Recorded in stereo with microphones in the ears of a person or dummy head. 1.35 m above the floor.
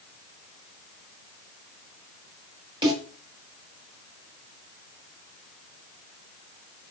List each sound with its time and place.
2.8 s a snare drum: 25° right (ahead or behind), 6.5 m